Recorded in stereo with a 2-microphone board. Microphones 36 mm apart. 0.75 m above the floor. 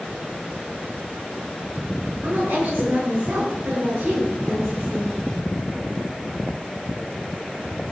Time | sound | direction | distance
2.2 | a woman speaking | 85° right | 9 m